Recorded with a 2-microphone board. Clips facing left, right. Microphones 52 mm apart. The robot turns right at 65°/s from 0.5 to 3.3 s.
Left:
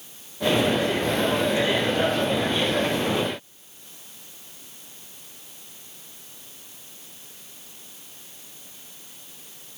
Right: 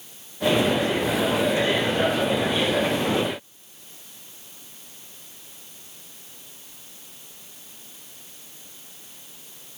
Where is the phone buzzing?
I don't hear a phone buzzing.